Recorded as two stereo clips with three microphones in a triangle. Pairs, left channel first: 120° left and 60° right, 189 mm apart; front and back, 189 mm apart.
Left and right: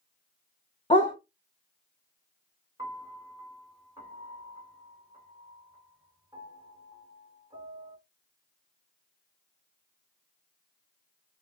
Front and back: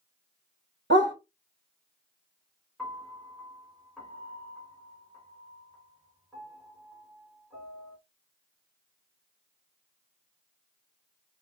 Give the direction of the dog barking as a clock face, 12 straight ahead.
6 o'clock.